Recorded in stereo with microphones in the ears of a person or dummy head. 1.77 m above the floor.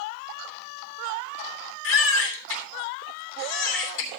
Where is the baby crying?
70° left (ahead or behind), 2.5 m.